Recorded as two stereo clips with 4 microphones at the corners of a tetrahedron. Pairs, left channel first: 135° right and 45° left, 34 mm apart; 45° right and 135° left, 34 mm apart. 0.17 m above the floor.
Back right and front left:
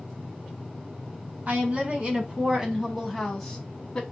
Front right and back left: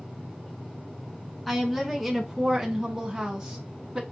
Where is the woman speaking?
45° left, 1.5 m; by 4.0 s 170° left, 1.3 m.